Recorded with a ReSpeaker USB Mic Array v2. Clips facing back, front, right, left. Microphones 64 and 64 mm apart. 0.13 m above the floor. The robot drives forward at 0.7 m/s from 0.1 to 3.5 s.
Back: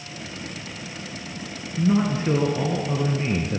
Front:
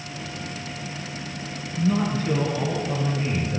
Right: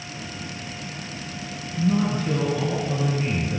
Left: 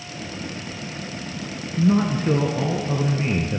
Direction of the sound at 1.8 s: 110° left.